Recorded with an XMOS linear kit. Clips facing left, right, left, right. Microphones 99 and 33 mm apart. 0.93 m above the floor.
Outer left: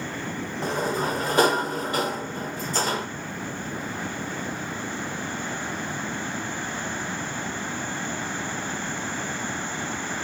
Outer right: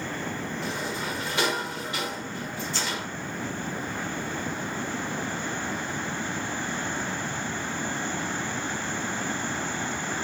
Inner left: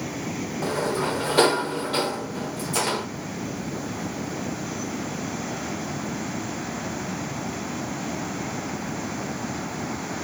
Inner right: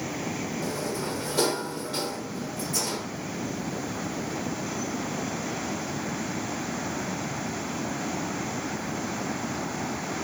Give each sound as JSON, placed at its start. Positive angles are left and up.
{"t": 0.6, "sound": "a sliding door", "side_deg": 40, "distance_m": 0.8}